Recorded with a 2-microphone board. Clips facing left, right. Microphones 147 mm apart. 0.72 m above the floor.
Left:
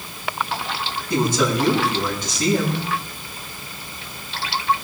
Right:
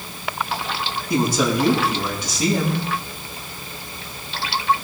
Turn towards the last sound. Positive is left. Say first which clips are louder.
# even
turn(degrees=-10)  # may be behind; listen again after turning